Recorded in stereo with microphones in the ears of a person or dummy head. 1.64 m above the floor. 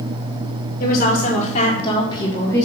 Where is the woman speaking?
55° left (ahead or behind), 1.8 m; by 2.6 s 10° left (ahead or behind), 1.4 m.